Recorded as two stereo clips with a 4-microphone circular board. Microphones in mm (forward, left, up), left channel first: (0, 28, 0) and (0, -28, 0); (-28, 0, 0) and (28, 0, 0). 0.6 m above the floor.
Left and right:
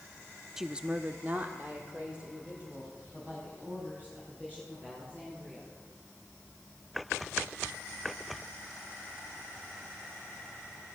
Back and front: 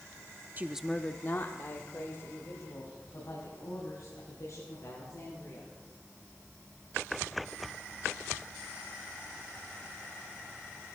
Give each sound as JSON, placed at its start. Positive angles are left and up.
{"t": 0.6, "sound": "a woman speaking", "azimuth_deg": -15, "distance_m": 0.7}